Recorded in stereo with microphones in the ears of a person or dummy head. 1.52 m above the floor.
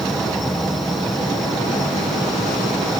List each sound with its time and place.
0.0 s an insect: centre (ahead or behind)